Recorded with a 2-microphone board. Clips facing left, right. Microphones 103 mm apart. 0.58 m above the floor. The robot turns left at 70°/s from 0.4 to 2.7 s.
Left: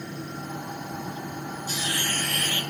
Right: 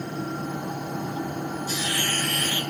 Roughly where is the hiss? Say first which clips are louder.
Right 2 dB; ahead left.